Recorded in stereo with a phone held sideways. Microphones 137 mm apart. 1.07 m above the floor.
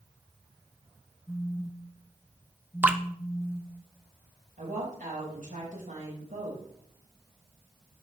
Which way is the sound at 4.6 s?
85° right.